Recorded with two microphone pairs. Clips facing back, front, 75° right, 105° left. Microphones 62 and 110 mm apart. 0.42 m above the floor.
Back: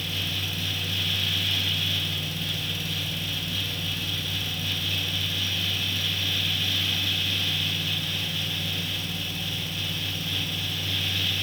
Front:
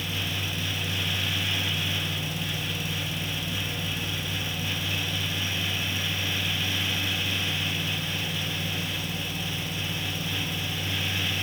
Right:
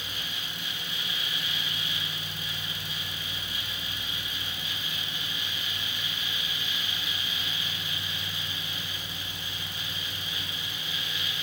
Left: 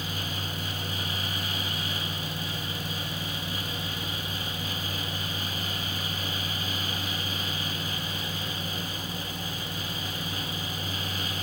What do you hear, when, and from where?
Only background noise.